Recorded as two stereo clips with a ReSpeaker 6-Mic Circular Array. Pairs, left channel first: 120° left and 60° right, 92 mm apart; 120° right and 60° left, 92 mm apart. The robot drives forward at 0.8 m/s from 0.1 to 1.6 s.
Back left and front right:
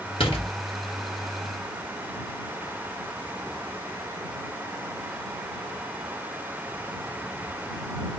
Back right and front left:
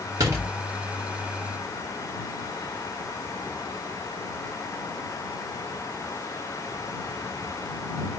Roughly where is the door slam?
Left.